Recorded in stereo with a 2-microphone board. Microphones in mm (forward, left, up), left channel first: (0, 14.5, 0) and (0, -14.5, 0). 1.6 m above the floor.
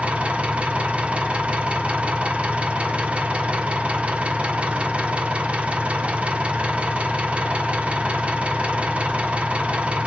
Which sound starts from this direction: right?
An engine running, at 0.0 s.